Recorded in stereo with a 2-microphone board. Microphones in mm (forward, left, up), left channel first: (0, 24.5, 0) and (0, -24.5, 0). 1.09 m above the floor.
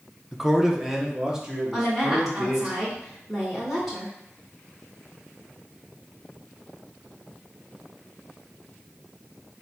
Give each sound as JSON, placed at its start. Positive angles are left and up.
{"t": 0.3, "sound": "a man speaking", "side_deg": -5, "distance_m": 0.5}
{"t": 1.7, "sound": "a woman speaking", "side_deg": -10, "distance_m": 1.9}